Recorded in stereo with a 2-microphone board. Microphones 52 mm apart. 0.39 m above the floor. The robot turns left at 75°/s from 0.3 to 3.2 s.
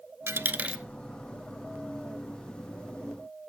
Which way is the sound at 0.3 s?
55° right (ahead or behind).